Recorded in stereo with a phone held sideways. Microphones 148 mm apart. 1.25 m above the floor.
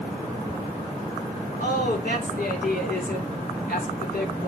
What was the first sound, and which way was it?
A woman speaking, 70° left (ahead or behind).